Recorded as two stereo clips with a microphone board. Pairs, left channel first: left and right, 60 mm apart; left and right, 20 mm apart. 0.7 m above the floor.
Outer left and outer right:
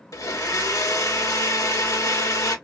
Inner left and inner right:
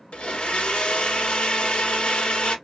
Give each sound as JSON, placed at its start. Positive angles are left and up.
{"t": 0.1, "sound": "a blender", "side_deg": 65, "distance_m": 1.1}